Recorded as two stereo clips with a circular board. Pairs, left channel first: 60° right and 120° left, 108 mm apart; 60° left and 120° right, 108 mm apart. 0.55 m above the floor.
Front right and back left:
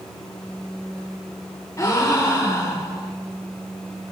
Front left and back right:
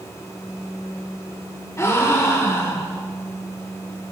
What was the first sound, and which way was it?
A gasp, straight ahead.